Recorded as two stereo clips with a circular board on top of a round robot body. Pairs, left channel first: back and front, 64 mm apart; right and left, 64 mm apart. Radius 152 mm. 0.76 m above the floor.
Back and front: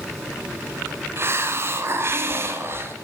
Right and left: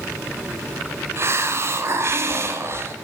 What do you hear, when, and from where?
1.2 s a hiss: 45° left, 1.3 m